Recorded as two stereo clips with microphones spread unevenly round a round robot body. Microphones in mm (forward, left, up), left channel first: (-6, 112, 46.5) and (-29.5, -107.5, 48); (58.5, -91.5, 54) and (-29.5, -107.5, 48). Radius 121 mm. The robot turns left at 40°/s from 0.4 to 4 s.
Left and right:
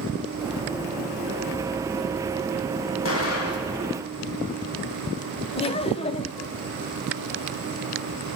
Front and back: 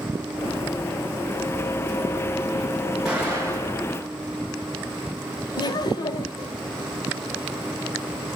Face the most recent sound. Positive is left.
turn(degrees=30)